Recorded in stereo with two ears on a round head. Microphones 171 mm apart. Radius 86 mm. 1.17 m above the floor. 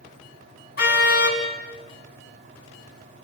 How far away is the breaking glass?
No breaking glass in this recording.